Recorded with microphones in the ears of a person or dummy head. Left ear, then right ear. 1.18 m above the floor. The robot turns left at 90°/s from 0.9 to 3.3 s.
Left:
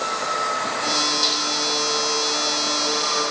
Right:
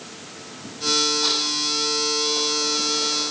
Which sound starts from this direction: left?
A snare drum, at 1.2 s.